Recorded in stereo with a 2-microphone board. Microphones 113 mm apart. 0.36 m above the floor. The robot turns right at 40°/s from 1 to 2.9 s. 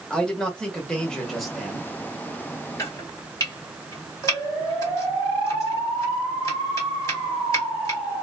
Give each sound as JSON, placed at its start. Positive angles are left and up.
{"t": 0.1, "sound": "a man speaking", "side_deg": 5, "distance_m": 1.1}
{"t": 2.8, "sound": "chopping", "side_deg": 30, "distance_m": 1.6}